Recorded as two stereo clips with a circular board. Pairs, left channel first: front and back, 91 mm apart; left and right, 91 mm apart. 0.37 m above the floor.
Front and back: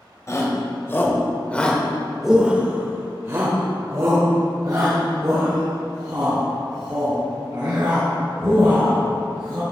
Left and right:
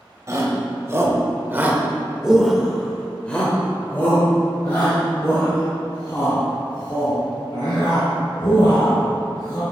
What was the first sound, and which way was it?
A shout, 45° right.